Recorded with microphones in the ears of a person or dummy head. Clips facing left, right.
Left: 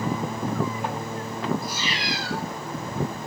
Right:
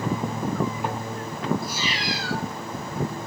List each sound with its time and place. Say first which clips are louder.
1.6 s a cat meowing: right 1 dB; centre (ahead or behind), 2.0 m